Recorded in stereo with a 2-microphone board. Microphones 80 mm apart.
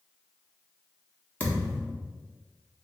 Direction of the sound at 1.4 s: 20° left (ahead or behind).